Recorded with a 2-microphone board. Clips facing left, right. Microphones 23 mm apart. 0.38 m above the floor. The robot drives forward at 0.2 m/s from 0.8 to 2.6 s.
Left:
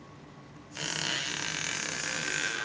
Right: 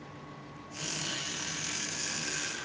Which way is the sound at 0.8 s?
35° left (ahead or behind).